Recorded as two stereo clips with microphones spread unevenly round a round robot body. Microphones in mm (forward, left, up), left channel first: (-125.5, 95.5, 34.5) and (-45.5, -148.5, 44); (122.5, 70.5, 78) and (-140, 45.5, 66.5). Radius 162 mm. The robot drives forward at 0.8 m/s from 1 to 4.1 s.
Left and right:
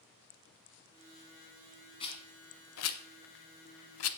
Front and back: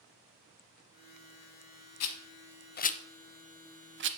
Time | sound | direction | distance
2.0 | a rattle | 35° left | 1.1 m